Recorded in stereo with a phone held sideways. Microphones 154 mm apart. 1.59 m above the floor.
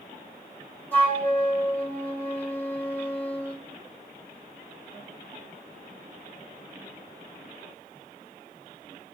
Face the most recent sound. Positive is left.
turn(degrees=10)  # may be behind; listen again after turning